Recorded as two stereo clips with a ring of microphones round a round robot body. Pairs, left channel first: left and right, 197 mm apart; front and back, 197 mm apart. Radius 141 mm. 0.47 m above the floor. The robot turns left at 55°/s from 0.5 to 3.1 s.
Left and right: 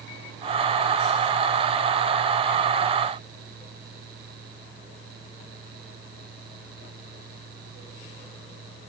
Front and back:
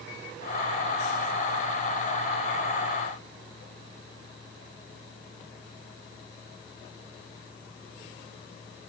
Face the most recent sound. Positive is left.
No sound to turn to.